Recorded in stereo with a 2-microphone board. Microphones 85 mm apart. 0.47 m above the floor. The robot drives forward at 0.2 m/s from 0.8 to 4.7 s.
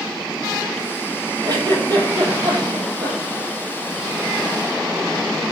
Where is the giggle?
55° right (ahead or behind), 8.5 m; by 3.4 s 50° right (ahead or behind), 8.5 m.